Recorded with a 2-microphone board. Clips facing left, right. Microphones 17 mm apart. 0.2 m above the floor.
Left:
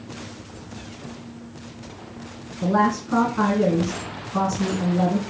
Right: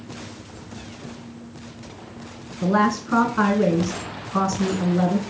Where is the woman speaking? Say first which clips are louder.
Even; 50° right (ahead or behind), 1.5 m.